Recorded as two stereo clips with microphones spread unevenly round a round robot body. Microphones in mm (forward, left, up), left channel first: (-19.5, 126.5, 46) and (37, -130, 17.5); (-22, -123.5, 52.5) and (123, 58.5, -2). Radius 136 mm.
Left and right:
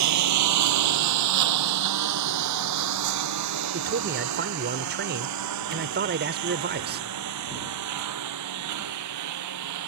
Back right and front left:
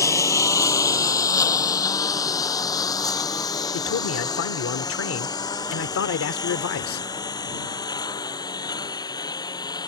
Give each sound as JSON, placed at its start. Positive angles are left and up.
{"t": 0.0, "sound": "a lawn mower", "azimuth_deg": -55}
{"t": 3.7, "sound": "a man speaking", "azimuth_deg": -110}